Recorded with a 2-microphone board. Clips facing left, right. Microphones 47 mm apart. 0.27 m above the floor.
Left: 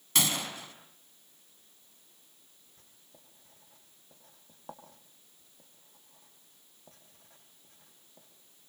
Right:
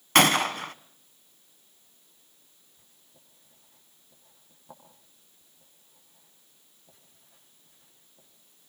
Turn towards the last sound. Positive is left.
turn(degrees=60)  # may be behind; listen again after turning